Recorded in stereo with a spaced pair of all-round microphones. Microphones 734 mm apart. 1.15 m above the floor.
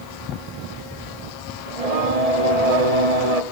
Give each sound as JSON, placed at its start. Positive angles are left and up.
{"t": 1.7, "sound": "singing", "side_deg": -55, "distance_m": 1.4}